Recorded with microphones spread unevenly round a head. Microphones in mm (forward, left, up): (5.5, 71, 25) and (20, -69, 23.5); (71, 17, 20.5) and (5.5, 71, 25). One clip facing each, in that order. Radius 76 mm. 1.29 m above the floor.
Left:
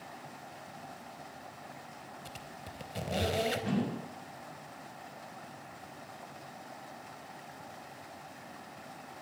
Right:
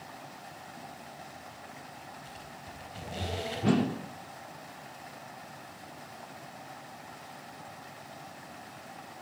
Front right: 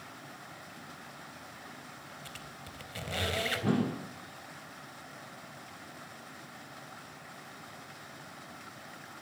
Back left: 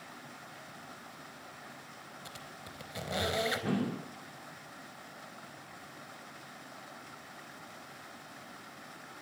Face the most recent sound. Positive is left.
turn(degrees=-120)